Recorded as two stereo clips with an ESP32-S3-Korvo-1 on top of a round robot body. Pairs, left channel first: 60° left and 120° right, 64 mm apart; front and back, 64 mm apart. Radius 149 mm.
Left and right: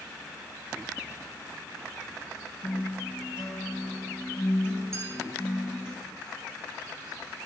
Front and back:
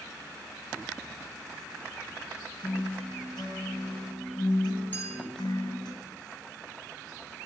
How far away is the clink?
About 4 m.